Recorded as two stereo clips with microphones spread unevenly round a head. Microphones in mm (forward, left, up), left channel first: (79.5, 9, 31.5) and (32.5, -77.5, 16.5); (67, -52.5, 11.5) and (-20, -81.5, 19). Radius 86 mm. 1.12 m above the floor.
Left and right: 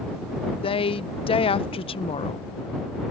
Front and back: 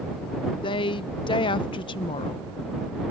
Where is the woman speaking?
35° left.